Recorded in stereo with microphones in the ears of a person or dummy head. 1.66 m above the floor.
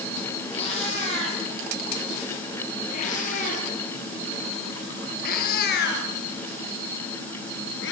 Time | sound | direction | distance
0.5 | a cat meowing | 35° left (ahead or behind) | 9.5 m